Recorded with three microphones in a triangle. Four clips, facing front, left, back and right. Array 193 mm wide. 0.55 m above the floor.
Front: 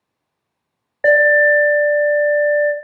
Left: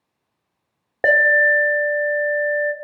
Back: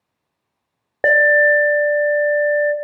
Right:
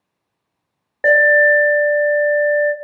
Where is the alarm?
150° left, 0.7 m.